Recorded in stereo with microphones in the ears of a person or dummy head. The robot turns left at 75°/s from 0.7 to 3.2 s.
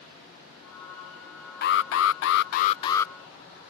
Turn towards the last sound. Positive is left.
turn(degrees=5)